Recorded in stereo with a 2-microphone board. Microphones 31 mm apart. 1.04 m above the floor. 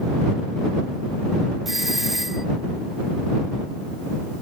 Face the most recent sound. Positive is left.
turn(degrees=-5)  # may be behind; listen again after turning